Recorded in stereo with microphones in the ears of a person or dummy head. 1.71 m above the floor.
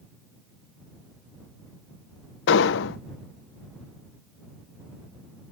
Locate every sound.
2.5 s an explosion: 70° left (ahead or behind)